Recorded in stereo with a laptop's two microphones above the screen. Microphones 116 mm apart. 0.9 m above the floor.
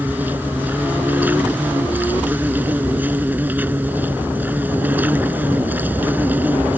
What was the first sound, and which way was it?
An insect, 15° right (ahead or behind).